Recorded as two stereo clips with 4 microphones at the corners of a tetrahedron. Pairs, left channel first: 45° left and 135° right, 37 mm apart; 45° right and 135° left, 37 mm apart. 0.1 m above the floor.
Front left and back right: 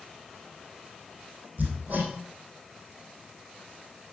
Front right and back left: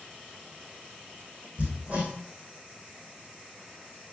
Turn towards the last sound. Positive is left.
turn(degrees=175)